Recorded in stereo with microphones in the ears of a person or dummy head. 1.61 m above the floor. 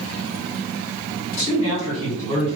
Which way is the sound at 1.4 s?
35° left (ahead or behind).